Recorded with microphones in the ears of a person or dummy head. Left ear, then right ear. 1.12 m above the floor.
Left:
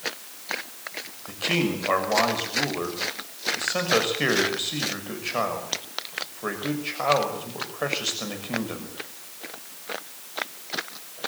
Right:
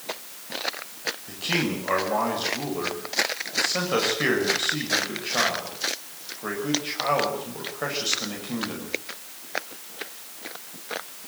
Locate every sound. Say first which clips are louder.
1.3 s a man speaking: left 2 dB; 25° left (ahead or behind), 6 m